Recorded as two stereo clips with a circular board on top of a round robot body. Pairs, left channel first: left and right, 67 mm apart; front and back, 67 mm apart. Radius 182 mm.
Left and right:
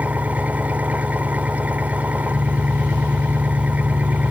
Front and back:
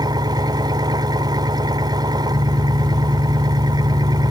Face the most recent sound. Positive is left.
turn(degrees=-160)